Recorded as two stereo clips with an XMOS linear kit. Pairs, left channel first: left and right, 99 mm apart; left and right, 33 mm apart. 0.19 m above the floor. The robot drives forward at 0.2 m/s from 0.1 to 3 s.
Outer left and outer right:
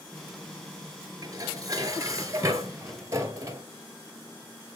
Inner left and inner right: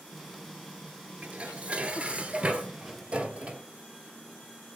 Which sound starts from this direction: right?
Dishes clattering, at 1.2 s.